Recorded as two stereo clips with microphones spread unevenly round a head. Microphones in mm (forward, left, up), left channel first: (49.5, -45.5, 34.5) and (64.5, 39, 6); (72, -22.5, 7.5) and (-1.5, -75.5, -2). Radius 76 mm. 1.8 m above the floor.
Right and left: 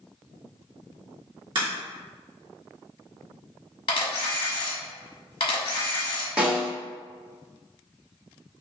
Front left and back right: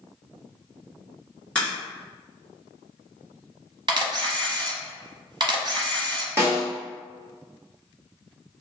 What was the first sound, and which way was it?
A crack, 100° left.